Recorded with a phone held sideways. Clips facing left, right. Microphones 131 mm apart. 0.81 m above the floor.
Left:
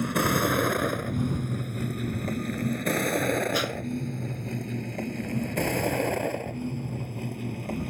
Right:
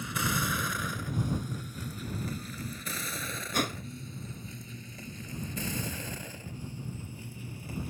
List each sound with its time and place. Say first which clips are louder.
0.0 s a vehicle: left 9 dB; 65° left (ahead or behind); by 7.9 s 75° left (ahead or behind)
3.5 s a whoosh: left 4 dB; 50° right (ahead or behind)